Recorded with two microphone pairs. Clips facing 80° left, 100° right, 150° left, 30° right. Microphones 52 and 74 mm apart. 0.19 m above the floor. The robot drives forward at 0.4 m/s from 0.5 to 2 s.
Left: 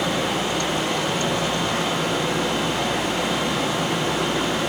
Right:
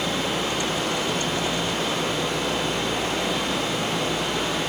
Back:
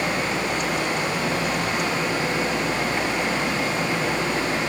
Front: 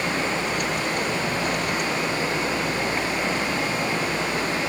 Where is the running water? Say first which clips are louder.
Left 2 dB, back 1 dB; 75° left, 7.5 m; by 4.7 s 80° left, 7 m.